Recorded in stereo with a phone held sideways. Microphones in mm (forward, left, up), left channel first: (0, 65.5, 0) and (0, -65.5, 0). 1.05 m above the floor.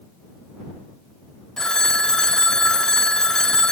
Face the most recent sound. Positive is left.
turn(degrees=5)  # may be behind; listen again after turning